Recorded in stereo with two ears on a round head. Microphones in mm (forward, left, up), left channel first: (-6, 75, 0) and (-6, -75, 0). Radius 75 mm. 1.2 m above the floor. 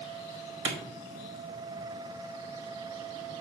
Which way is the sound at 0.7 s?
80° right.